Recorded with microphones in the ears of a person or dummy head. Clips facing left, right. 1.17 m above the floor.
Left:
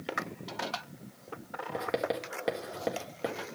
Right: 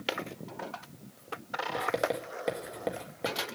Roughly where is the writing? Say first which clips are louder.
Right 1 dB; centre.